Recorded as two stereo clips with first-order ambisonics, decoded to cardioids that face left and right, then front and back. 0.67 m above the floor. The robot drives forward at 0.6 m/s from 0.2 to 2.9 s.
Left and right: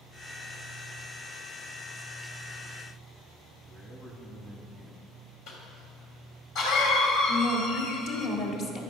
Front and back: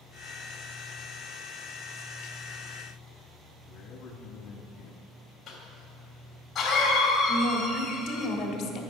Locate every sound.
3.7 s a man speaking: 15° left, 0.9 m
5.5 s a cough: 65° left, 3.5 m
7.3 s a woman speaking: 45° left, 1.7 m